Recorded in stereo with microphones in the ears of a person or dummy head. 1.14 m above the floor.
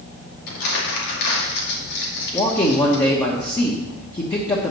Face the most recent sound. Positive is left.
turn(degrees=20)  # may be behind; listen again after turning